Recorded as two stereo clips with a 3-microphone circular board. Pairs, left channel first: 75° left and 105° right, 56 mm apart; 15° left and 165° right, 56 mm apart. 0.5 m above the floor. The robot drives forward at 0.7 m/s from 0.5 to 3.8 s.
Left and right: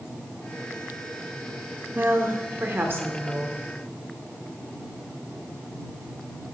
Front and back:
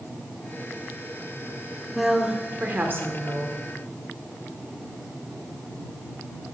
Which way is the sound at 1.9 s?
75° right.